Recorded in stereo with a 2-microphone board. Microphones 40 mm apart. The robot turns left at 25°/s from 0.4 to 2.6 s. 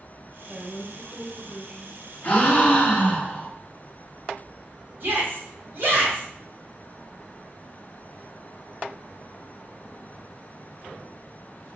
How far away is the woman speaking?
About 1.8 m.